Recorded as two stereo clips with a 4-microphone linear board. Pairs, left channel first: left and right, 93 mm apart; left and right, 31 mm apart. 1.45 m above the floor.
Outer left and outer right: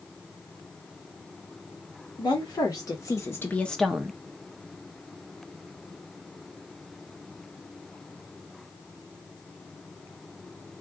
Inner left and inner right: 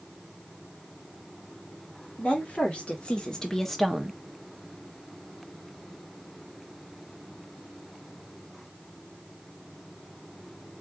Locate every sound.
2.2 s a woman speaking: 50° left (ahead or behind), 2.0 m; by 4.2 s 25° right (ahead or behind), 0.7 m